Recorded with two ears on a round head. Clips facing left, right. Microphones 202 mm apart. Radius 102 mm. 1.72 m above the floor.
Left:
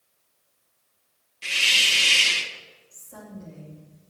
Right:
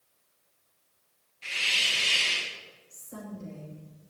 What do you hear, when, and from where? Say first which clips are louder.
1.4 s a hiss: left 4 dB; 55° left (ahead or behind), 1.9 m
2.9 s a woman speaking: right 1 dB; 35° right (ahead or behind), 2.5 m